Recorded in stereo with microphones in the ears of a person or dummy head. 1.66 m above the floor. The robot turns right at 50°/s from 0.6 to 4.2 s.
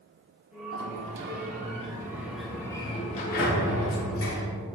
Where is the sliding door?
85° right, 1.3 m; by 4.5 s 90° left, 1.3 m.